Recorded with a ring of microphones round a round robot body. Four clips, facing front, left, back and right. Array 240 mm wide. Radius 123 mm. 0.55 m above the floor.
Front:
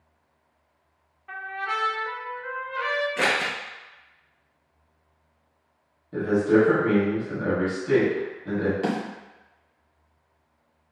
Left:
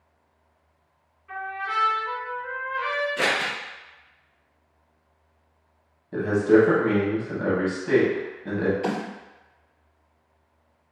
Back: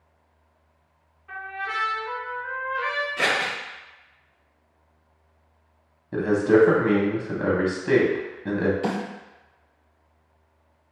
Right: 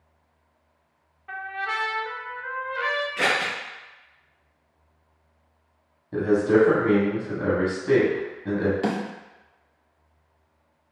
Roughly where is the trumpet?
Ahead right.